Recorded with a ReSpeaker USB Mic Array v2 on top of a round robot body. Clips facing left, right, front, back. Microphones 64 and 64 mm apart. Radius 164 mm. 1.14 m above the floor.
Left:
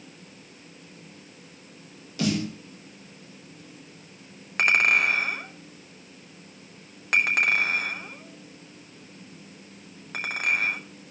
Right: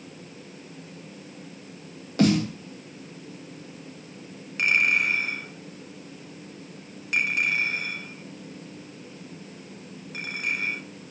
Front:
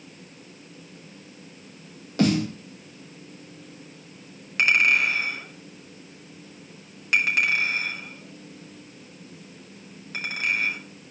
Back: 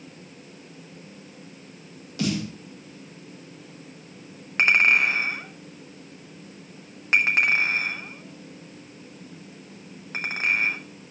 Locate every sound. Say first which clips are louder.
2.2 s a snare drum: right 6 dB, front 6 dB; 45° right, 2.5 m
4.6 s a clink: left 2 dB, back 1 dB; 125° left, 3 m